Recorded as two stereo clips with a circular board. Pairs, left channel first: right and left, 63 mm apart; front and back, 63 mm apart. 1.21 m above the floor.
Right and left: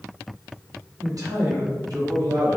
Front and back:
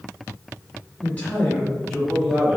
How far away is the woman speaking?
About 1.7 m.